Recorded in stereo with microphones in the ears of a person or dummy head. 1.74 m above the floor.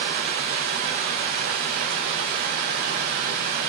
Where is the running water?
40° right (ahead or behind), 1.6 m.